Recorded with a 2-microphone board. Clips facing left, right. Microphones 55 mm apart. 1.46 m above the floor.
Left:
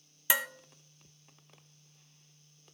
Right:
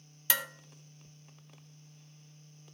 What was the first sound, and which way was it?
Dishes clattering, 15° left (ahead or behind).